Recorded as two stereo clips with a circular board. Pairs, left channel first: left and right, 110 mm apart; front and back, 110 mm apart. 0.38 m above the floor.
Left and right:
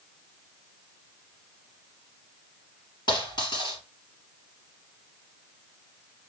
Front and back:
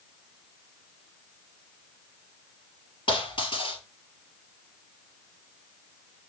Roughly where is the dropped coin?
Ahead left.